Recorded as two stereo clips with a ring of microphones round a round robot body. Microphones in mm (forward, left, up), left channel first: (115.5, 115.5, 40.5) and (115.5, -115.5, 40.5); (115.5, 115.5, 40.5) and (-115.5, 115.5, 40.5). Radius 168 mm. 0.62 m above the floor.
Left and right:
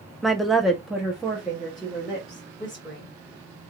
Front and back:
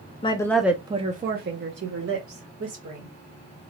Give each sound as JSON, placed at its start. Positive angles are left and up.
{"t": 0.2, "sound": "a woman speaking", "azimuth_deg": 0, "distance_m": 0.6}